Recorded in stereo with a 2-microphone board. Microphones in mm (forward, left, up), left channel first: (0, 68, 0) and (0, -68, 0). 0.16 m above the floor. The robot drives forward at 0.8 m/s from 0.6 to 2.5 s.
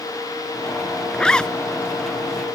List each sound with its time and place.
1.1 s a zipper: 5° left (ahead or behind)